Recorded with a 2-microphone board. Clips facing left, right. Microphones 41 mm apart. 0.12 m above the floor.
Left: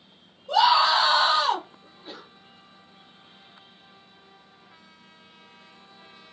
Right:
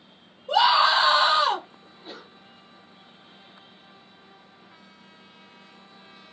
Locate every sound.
0.5 s a scream: 10° right (ahead or behind), 1.2 m
1.8 s a sneeze: centre (ahead or behind), 2 m